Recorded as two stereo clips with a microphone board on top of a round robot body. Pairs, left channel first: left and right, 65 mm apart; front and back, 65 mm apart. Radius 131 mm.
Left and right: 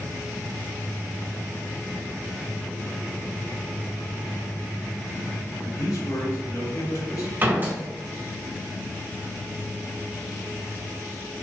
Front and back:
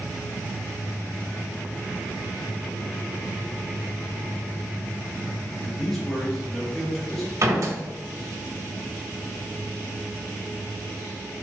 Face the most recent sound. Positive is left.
turn(degrees=-145)